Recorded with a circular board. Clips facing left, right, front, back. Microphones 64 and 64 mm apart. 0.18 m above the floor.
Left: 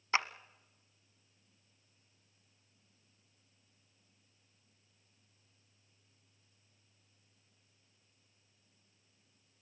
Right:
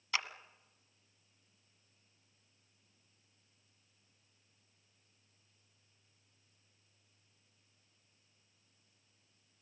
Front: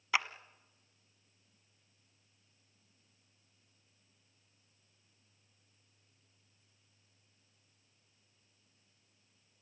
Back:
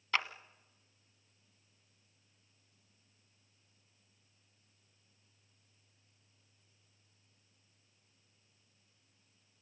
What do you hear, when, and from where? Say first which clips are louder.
0.1 s a clap: left 5 dB, front 1 dB; 70° left, 1.1 m